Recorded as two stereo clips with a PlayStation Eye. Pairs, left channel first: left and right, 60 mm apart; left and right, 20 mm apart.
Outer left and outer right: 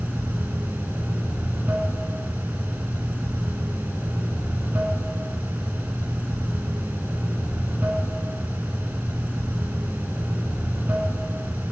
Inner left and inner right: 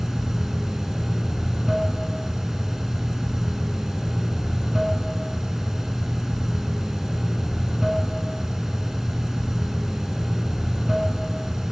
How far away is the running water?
About 1.1 m.